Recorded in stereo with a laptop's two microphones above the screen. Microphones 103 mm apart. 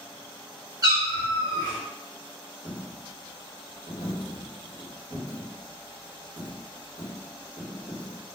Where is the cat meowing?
35° right (ahead or behind), 1.1 m.